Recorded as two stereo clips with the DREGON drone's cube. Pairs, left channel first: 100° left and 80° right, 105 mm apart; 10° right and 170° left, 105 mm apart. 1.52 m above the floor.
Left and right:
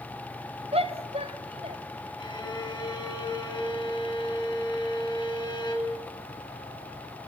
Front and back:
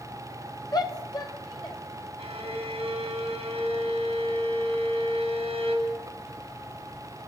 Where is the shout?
65° right, 2.0 m; by 1.8 s 60° right, 2.5 m.